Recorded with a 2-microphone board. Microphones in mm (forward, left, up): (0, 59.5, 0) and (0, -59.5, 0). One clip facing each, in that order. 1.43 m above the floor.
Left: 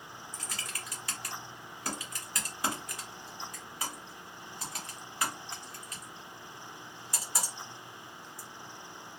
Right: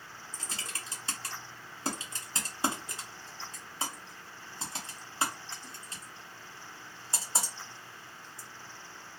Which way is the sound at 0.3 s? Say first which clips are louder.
Right 1 dB; 25° right (ahead or behind).